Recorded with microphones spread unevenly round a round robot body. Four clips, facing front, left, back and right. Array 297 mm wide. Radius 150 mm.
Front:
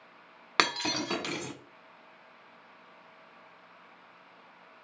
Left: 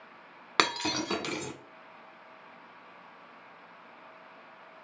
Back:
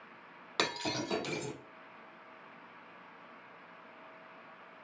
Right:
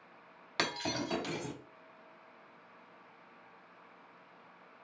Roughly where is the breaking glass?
Ahead left.